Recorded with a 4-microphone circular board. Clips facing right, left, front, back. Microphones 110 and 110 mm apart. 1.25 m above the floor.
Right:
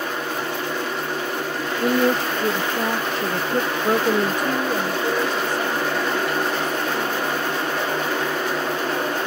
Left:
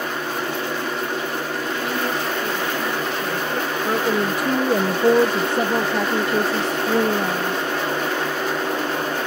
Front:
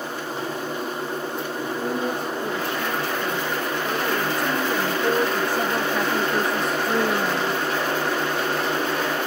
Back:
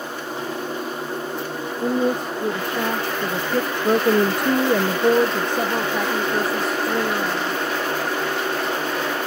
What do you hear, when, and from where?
1.8 s a woman speaking: 125° right; by 7.6 s 85° left